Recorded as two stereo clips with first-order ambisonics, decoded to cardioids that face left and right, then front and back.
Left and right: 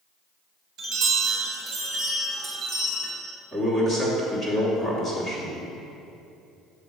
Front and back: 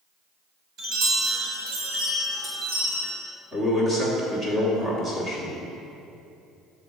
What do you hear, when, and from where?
0.8 s a chime: 140° right, 1.6 m
3.5 s a man speaking: 140° left, 1.2 m